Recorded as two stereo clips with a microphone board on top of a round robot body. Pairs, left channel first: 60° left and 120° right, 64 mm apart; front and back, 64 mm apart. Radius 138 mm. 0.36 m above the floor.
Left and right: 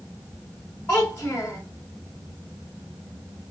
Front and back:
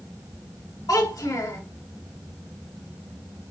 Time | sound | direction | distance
0.9 | a child speaking | straight ahead | 3 m